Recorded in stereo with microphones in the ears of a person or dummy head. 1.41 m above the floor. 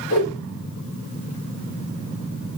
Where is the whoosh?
85° left, 3.5 m.